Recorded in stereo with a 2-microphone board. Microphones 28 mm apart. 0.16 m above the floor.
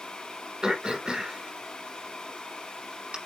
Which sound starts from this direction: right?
Throat clearing, at 0.6 s.